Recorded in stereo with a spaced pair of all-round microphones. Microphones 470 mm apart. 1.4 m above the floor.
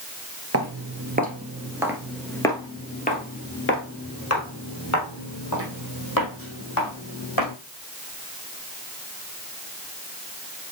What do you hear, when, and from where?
0.5 s footsteps: 30° right (ahead or behind), 1.6 m; by 7.5 s 45° left (ahead or behind), 4 m